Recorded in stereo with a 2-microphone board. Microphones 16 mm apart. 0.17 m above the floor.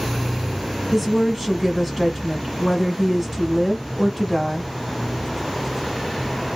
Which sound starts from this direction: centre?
A woman speaking, at 0.9 s.